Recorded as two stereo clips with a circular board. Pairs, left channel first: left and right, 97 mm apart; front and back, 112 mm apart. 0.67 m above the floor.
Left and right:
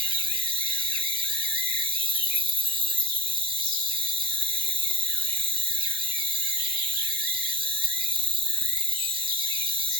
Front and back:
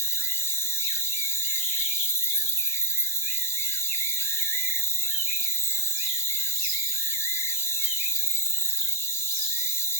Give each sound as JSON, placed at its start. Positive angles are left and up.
{"t": 0.0, "sound": "an insect", "azimuth_deg": -65, "distance_m": 1.1}